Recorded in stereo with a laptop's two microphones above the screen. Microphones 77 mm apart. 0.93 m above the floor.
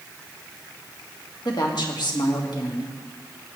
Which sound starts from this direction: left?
A woman speaking, at 1.4 s.